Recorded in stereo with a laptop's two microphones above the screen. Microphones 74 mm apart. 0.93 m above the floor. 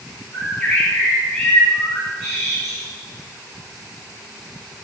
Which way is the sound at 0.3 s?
Centre (ahead or behind).